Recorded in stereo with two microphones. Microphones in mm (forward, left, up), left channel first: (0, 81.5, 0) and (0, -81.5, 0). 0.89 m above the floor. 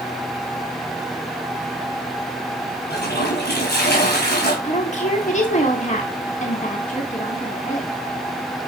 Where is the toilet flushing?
85° left, 4 m.